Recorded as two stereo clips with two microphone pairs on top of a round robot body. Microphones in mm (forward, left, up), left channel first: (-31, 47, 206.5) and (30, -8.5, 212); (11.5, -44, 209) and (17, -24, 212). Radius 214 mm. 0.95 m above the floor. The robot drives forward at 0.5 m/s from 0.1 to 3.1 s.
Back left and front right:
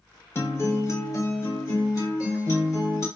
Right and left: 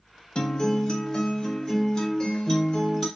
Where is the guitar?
160° right, 0.5 m; by 3.1 s 175° right, 1.9 m.